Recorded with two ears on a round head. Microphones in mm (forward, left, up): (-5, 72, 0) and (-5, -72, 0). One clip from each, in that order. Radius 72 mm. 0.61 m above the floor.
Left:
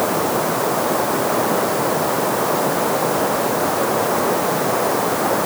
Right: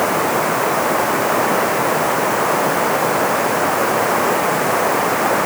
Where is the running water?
55° right (ahead or behind).